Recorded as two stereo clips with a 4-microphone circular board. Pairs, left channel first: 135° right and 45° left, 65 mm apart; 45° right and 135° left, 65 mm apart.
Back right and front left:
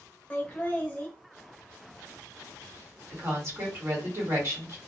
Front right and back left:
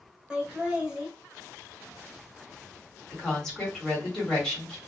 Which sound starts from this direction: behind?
Laughter, at 0.3 s.